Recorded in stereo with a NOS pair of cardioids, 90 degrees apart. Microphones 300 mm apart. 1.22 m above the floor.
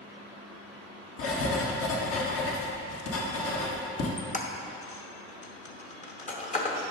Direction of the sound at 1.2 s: 50° left.